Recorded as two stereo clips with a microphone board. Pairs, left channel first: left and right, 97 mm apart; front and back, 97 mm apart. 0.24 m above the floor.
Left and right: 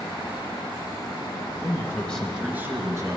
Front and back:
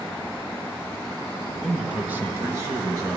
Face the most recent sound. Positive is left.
turn(degrees=-135)